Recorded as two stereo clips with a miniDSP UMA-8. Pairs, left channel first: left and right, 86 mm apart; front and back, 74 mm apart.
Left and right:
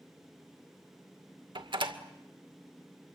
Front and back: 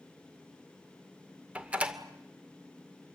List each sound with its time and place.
1.6 s a door slam: 105° right, 2 m